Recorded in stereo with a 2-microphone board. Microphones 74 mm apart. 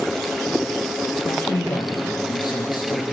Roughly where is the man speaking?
Left.